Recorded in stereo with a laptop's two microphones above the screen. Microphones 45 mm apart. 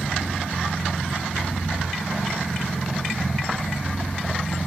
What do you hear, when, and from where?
0.0 s a machine running: 55° left (ahead or behind), 7.5 m